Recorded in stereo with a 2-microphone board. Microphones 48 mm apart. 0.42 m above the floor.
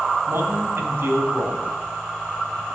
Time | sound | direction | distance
0.3 | a man speaking | 55° right (ahead or behind) | 3 m